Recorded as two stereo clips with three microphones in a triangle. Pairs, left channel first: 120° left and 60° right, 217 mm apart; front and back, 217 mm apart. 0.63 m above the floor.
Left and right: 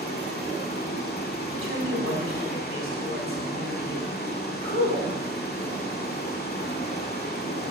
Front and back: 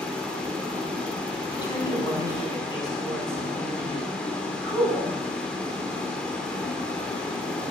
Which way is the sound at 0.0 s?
85° left.